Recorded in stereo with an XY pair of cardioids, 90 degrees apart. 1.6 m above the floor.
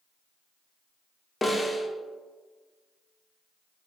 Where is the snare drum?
10° left, 0.8 m.